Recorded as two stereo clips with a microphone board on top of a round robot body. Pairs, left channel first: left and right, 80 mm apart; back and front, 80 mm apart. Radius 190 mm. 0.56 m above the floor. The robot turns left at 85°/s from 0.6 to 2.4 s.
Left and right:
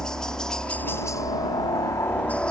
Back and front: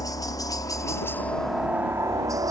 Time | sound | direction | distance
0.0 | a helicopter | 170° left | ?